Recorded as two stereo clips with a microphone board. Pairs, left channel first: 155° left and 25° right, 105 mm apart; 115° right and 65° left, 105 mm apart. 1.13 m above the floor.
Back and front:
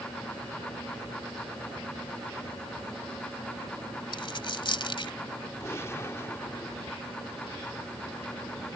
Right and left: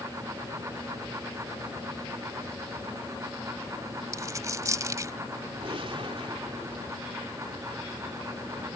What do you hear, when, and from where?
4.1 s a dropped coin: 125° left
5.6 s a gunshot: 95° left